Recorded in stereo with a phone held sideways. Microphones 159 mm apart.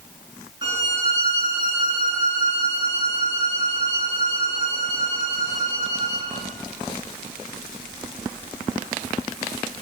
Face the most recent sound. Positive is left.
turn(degrees=-30)  # may be behind; listen again after turning